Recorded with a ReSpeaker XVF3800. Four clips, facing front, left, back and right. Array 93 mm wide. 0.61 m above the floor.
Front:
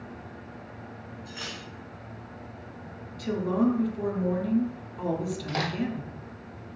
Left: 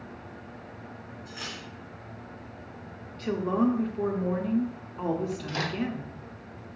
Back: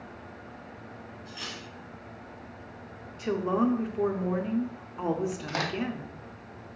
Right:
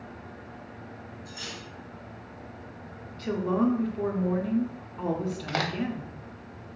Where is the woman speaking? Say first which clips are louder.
Even, front 1 dB; 170° left, 0.6 m.